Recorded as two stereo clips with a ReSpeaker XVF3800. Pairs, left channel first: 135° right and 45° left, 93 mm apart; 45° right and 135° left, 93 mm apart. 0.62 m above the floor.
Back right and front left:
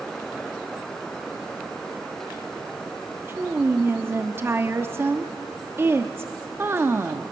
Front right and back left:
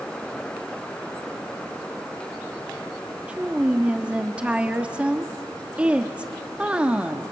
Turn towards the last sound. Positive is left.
turn(degrees=75)